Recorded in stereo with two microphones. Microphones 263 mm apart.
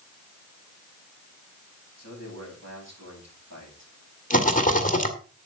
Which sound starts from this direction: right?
A man speaking, at 2.0 s.